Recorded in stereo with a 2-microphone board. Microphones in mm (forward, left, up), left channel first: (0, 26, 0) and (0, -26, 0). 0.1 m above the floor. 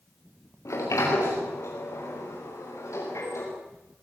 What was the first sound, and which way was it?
A sliding door, 80° left.